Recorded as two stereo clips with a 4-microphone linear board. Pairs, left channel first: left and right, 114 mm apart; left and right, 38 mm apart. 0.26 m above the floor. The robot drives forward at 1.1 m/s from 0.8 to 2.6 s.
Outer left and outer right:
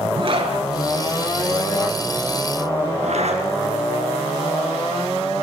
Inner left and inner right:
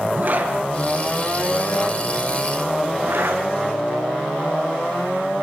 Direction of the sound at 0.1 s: 50° right (ahead or behind).